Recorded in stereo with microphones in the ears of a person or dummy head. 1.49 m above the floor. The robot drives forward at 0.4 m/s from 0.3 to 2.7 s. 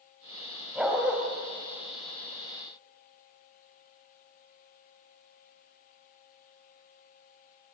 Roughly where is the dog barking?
Centre.